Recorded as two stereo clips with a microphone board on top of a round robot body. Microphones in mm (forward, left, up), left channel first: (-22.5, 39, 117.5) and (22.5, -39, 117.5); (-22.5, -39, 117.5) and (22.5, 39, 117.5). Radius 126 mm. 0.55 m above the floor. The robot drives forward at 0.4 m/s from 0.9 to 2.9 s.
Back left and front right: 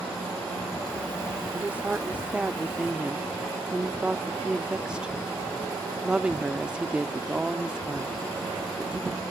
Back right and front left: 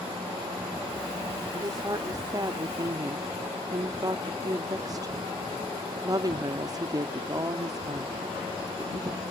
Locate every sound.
1.5 s a woman speaking: 15° left; by 9.2 s 20° left